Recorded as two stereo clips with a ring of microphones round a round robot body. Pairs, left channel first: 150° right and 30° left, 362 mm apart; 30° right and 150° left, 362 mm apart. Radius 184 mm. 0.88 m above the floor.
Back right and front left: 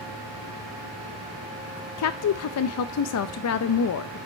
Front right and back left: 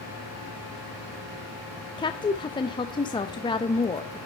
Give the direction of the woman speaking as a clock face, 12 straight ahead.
4 o'clock.